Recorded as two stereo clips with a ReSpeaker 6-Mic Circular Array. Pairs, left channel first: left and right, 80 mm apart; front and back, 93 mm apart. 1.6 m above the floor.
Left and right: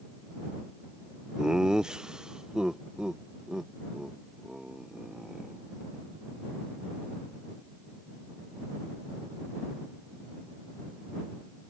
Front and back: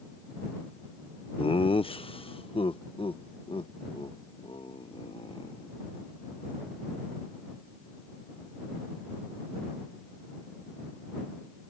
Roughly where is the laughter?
Ahead.